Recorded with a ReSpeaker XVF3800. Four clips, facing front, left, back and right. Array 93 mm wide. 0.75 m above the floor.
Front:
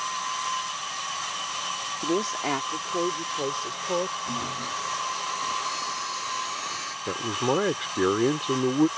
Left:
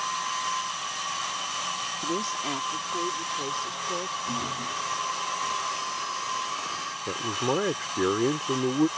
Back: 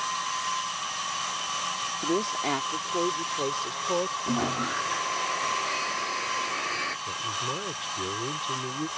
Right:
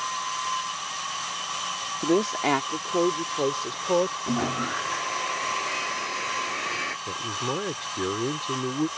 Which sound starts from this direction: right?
A woman speaking, at 2.0 s.